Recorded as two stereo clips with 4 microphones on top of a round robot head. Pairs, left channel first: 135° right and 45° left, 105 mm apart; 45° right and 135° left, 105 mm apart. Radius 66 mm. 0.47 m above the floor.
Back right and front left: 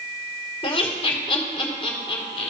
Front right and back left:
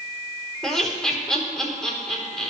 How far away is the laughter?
About 2 m.